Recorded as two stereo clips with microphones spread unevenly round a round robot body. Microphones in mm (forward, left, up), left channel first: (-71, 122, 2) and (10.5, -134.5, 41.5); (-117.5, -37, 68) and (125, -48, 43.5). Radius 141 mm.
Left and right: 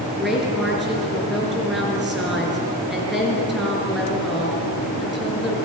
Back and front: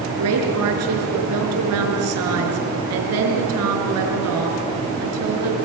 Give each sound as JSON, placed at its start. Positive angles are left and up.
{"t": 0.2, "sound": "a woman speaking", "azimuth_deg": 15, "distance_m": 5.0}